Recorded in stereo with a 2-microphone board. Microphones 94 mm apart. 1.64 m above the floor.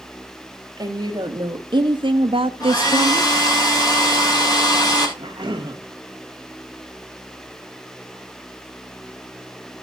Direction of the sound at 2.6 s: 45° left (ahead or behind).